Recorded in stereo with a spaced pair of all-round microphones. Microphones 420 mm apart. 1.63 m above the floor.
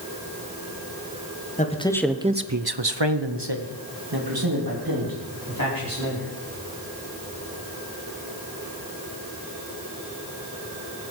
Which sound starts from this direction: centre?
A man speaking, at 1.6 s.